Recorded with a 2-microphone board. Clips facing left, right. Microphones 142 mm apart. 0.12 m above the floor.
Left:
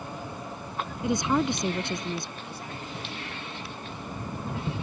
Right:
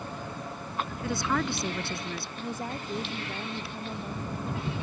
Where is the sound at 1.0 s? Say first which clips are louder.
Left 5 dB; 20° left (ahead or behind).